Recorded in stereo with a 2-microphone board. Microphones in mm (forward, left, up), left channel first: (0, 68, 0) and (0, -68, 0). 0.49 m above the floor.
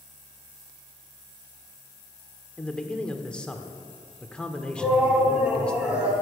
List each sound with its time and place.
2.6 s a man speaking: 5° left (ahead or behind), 1.0 m
4.8 s a shout: 10° right (ahead or behind), 3.5 m